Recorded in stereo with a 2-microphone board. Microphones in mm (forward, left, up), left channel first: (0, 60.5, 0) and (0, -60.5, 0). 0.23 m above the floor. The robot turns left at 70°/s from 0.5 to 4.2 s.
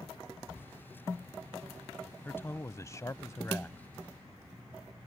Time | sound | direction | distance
2.2 | a man speaking | 20° left (ahead or behind) | ?